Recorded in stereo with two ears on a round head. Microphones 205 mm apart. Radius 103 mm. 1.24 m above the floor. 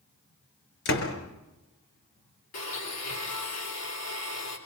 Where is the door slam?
60° left (ahead or behind), 4.5 m.